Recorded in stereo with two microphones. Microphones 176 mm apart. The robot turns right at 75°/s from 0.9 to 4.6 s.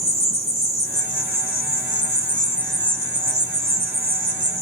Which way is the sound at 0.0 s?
45° left.